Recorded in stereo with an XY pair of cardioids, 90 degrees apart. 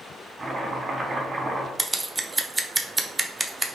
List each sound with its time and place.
0.4 s chopping: 35° right, 1.2 m
1.8 s scissors: 20° right, 0.5 m